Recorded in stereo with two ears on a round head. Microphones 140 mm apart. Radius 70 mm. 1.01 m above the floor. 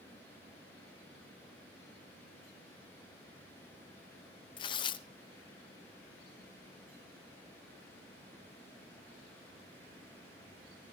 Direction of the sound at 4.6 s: 30° left (ahead or behind).